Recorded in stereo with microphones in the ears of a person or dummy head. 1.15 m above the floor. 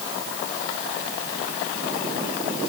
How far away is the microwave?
I don't hear a microwave.